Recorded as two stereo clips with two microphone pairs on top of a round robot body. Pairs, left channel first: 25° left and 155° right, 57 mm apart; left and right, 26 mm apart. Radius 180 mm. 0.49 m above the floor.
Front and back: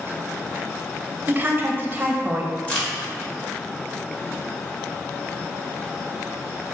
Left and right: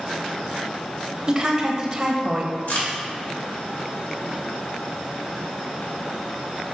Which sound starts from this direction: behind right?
A woman speaking, at 1.3 s.